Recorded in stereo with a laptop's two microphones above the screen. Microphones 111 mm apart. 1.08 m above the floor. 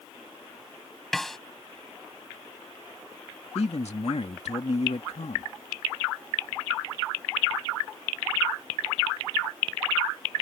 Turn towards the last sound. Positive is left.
turn(degrees=75)  # may be behind; listen again after turning